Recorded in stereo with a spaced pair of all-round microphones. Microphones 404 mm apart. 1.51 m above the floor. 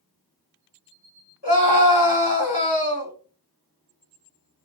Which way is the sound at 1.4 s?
70° left (ahead or behind).